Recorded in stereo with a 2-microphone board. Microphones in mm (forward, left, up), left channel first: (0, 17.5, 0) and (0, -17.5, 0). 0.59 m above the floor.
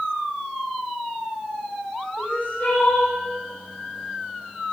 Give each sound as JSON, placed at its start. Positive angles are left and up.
{"t": 2.2, "sound": "crying", "side_deg": 60, "distance_m": 9.5}